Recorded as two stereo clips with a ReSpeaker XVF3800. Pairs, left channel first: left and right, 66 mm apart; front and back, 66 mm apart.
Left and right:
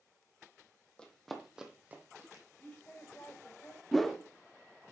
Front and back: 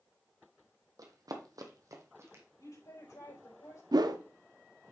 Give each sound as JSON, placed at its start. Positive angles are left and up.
{"t": 1.0, "sound": "running footsteps", "azimuth_deg": 165, "distance_m": 1.7}
{"t": 2.6, "sound": "a woman speaking", "azimuth_deg": 20, "distance_m": 4.0}
{"t": 3.9, "sound": "a whoosh", "azimuth_deg": 180, "distance_m": 0.7}